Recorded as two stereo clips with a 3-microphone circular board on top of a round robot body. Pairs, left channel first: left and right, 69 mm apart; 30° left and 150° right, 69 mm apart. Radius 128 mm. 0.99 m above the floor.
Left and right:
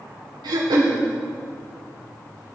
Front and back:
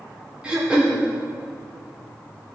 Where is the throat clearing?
75° right, 1.3 m.